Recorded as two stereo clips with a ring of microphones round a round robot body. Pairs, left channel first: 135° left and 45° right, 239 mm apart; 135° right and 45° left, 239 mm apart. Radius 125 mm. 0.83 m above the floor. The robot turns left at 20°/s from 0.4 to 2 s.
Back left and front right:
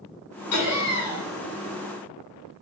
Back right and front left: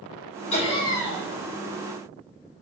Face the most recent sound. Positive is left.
turn(degrees=130)